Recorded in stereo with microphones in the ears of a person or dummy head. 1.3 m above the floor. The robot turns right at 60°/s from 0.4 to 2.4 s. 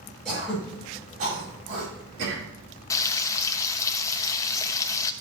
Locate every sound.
0.2 s throat clearing: 5° left (ahead or behind), 5.5 m; by 2.4 s 65° right (ahead or behind), 5.5 m
2.9 s frying: 20° left (ahead or behind), 0.6 m